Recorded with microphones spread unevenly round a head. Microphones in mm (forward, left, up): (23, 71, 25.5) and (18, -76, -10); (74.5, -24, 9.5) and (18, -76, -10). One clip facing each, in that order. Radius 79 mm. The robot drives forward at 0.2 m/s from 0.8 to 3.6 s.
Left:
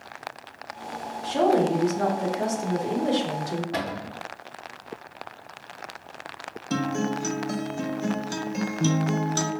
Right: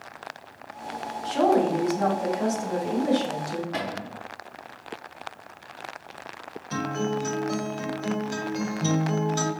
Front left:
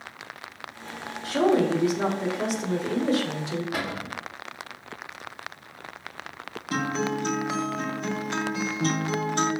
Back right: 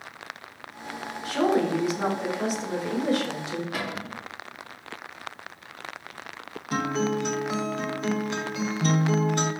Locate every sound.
1.2 s a woman speaking: 100° left, 1.9 m; by 3.6 s 110° left, 2.0 m
3.7 s a cupboard door: 105° left, 1.0 m
6.7 s a guitar: 125° left, 0.8 m